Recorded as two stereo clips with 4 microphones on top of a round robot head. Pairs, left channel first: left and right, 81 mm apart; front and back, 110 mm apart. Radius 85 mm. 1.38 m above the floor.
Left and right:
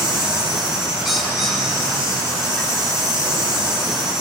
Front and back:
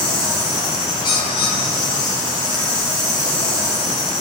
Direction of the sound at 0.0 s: 25° left.